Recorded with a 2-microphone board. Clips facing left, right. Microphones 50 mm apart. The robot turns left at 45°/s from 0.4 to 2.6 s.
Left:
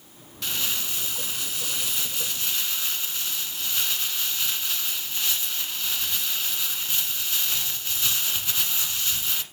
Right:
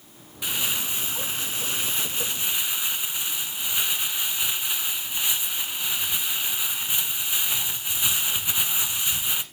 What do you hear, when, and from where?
0.4 s crumpling: 15° right (ahead or behind), 1.1 m